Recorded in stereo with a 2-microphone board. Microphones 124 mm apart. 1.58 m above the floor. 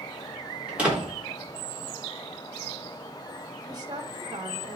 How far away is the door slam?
About 3.5 m.